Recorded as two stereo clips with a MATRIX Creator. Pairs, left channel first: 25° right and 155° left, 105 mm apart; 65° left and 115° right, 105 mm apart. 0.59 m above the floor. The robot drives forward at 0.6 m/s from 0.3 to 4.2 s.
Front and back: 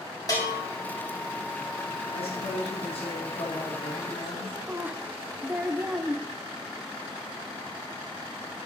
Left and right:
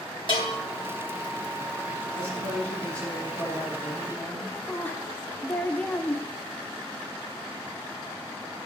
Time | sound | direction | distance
0.3 | a bell | 30° left | 3 m
2.1 | a man speaking | 5° right | 5 m
4.7 | a woman speaking | 115° left | 0.8 m